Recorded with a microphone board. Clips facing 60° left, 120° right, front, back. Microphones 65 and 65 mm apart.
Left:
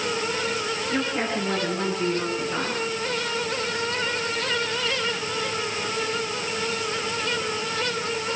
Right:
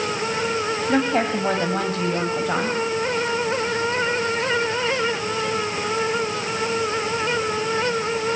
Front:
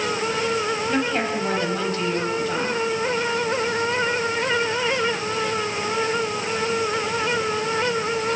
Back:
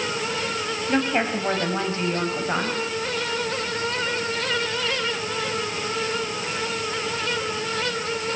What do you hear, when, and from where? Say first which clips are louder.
0.9 s a woman speaking: right 7 dB, back 4 dB; 105° right, 4.5 m; by 2.8 s 125° right, 4 m